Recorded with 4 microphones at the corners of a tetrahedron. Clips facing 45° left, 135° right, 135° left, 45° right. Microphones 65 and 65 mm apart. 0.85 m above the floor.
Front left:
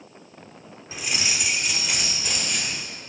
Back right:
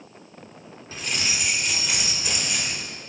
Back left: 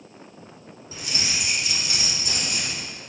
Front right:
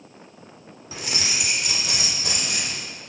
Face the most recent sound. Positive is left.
turn(degrees=-50)